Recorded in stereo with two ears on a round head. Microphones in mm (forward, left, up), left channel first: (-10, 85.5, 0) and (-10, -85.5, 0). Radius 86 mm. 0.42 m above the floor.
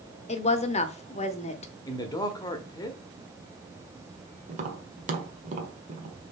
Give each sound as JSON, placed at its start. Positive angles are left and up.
{"t": 0.3, "sound": "a woman speaking", "side_deg": 35, "distance_m": 0.9}
{"t": 1.9, "sound": "a man speaking", "side_deg": 20, "distance_m": 1.0}
{"t": 4.5, "sound": "tapping", "side_deg": -40, "distance_m": 1.4}